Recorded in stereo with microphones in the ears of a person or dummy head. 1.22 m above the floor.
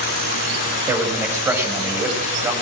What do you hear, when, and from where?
0.9 s a man speaking: 5° right (ahead or behind), 6.5 m